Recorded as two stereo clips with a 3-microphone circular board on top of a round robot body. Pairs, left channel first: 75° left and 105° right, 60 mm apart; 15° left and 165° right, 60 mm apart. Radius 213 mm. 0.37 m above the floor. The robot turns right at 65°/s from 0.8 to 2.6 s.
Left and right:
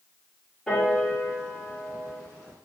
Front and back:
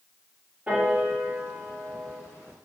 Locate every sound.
0.7 s a piano: 150° left, 1.6 m; by 2.2 s 120° right, 1.6 m